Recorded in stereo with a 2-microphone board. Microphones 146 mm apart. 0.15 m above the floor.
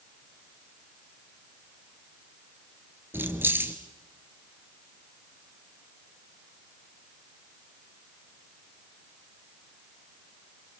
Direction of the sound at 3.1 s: 15° right (ahead or behind).